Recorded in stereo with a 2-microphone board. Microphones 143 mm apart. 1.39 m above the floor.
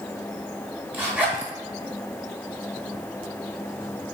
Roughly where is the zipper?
Centre.